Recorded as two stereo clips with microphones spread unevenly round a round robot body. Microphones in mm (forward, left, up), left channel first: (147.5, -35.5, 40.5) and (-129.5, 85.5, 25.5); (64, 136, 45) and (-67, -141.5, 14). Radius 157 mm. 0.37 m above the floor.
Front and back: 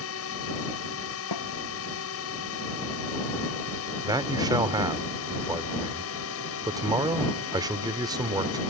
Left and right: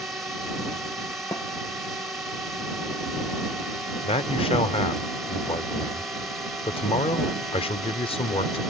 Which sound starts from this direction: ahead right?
A drone, at 0.0 s.